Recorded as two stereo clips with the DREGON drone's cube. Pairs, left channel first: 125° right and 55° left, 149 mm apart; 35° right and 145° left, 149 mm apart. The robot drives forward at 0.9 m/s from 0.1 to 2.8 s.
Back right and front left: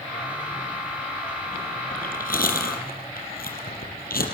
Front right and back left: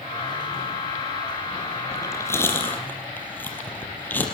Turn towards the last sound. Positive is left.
turn(degrees=-115)